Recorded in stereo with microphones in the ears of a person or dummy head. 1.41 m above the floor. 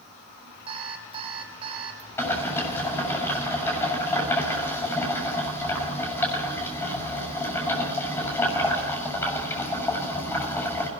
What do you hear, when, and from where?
0.7 s an alarm clock: 30° right (ahead or behind), 3 m
2.2 s boiling: 10° left (ahead or behind), 7.5 m